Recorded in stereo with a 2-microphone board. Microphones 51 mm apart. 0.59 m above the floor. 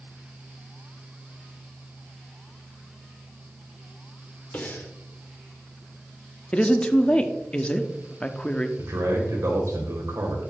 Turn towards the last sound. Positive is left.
turn(degrees=-70)  # may be behind; listen again after turning